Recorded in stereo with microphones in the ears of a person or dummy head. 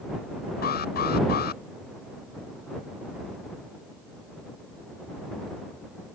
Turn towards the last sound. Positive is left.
turn(degrees=55)  # may be behind; listen again after turning